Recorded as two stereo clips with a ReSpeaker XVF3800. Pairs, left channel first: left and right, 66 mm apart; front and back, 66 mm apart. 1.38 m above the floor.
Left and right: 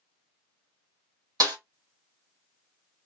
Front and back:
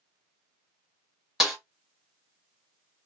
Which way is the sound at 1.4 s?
95° right.